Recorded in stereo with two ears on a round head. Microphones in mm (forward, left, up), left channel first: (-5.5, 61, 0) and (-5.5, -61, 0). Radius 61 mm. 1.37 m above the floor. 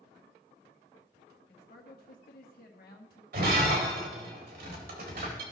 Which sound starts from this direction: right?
Breaking glass, at 3.3 s.